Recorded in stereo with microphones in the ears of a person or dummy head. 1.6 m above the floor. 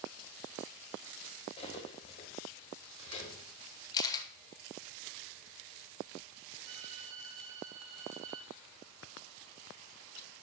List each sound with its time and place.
1.6 s cutlery clinking: 40° left (ahead or behind), 4.5 m
3.9 s a camera shutter: 20° left (ahead or behind), 1.2 m
6.6 s a violin: 40° right (ahead or behind), 5.5 m